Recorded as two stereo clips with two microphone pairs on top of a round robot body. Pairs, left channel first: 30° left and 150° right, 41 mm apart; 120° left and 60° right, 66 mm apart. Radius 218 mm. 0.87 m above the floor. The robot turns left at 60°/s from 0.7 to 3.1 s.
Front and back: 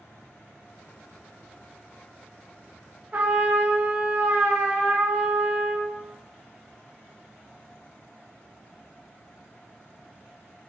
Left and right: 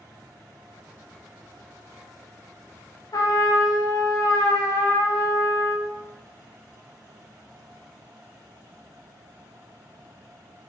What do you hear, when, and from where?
3.1 s a trumpet: 155° left, 0.9 m